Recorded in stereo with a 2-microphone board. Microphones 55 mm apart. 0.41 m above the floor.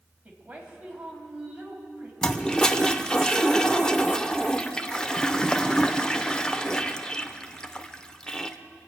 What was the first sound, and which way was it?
A woman speaking, 25° right (ahead or behind).